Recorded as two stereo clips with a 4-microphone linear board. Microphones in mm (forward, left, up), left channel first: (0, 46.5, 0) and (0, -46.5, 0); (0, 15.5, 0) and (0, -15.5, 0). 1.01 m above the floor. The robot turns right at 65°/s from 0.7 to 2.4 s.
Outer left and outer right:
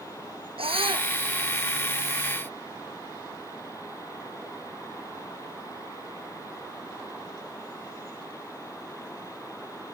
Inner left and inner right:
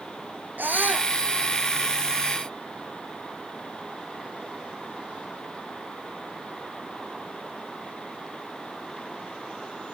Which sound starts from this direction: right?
A scream, at 0.6 s.